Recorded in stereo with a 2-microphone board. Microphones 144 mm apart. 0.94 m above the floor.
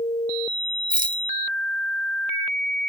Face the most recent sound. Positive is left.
turn(degrees=-75)  # may be behind; listen again after turning